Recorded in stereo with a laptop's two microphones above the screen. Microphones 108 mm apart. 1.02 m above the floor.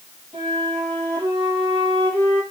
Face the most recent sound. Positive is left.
turn(degrees=-70)  # may be behind; listen again after turning